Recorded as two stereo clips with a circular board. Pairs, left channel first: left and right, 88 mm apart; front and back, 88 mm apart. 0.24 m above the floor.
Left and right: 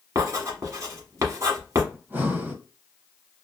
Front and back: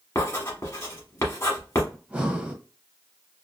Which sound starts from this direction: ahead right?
Writing, at 0.1 s.